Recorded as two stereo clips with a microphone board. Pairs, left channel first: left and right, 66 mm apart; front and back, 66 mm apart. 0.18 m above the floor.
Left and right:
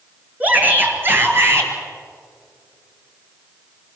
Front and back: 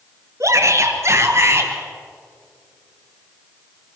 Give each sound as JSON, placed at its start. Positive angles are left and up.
{"t": 0.4, "sound": "a shout", "azimuth_deg": -150, "distance_m": 3.0}